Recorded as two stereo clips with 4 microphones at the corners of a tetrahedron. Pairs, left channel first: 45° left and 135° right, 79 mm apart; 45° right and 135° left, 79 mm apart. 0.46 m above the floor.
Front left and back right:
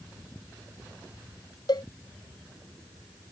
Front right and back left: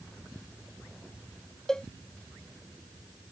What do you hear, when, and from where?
1.7 s a cowbell: 40° left